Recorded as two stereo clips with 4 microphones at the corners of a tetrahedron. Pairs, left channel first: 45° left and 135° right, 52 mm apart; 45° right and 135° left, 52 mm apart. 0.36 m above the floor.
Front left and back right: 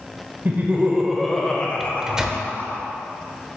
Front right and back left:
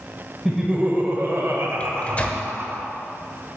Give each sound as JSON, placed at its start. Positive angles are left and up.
{"t": 0.5, "sound": "laughter", "azimuth_deg": -145, "distance_m": 1.0}
{"t": 1.8, "sound": "a microwave", "azimuth_deg": -65, "distance_m": 0.8}